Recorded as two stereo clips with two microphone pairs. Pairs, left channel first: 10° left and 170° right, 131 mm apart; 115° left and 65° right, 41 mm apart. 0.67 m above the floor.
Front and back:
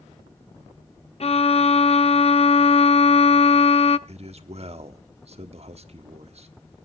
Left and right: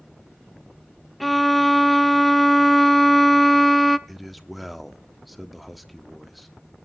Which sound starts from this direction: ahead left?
A violin, at 1.2 s.